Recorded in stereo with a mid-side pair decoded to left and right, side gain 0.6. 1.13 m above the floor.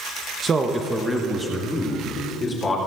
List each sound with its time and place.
0.4 s a man speaking: 40° right, 0.9 m; by 2.8 s 20° left, 3.5 m